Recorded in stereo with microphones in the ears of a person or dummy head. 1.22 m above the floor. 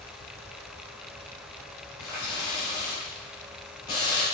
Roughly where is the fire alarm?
I don't hear a fire alarm.